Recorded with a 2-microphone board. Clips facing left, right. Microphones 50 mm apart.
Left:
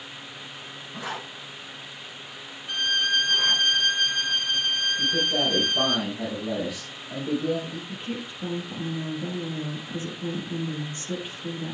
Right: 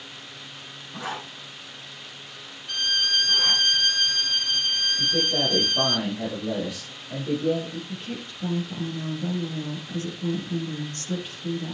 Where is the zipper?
20° right (ahead or behind), 7.5 m.